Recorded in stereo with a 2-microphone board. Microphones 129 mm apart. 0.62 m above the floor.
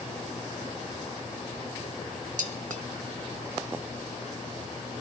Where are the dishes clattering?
80° right, 1.8 m.